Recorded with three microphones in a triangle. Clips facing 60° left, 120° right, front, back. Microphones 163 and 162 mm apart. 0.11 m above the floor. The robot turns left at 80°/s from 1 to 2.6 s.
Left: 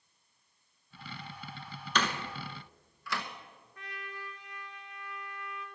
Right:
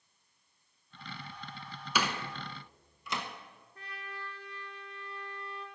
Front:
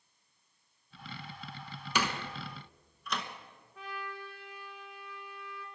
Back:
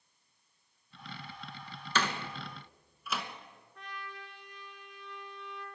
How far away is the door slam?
About 1.0 m.